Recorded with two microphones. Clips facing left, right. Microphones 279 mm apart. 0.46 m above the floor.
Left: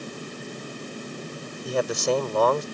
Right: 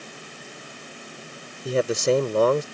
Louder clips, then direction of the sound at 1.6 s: Right 3 dB; 30° right (ahead or behind).